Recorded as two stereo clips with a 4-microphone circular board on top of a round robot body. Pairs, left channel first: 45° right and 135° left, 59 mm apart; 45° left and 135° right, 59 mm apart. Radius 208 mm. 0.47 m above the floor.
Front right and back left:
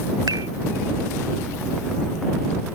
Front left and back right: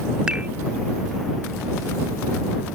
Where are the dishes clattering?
150° left.